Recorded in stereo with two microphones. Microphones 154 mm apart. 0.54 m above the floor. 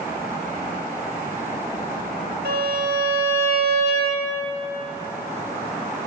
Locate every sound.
2.5 s a violin: 70° right (ahead or behind), 1.5 m